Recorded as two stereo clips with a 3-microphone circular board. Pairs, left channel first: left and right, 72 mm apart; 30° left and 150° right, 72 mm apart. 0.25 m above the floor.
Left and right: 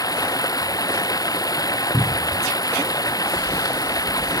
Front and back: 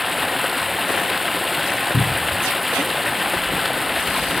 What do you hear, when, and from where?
0.0 s running water: 120° left
1.9 s a cupboard door: 10° left